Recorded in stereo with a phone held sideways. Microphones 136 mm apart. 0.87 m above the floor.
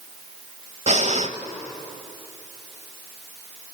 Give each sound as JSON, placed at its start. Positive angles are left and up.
{"t": 0.9, "sound": "breathing", "side_deg": -60, "distance_m": 1.1}